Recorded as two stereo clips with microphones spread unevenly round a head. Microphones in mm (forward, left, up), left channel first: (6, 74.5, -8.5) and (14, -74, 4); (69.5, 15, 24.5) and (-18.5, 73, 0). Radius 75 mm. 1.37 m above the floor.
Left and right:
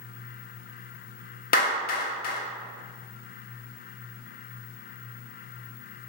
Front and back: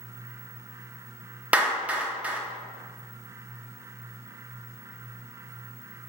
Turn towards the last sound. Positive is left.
turn(degrees=65)